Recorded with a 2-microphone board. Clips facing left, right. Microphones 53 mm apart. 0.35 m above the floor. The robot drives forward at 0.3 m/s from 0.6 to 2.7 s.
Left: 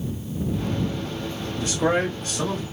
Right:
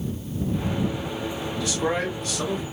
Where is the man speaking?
35° left (ahead or behind), 1.8 m; by 2.6 s 30° left (ahead or behind), 2 m.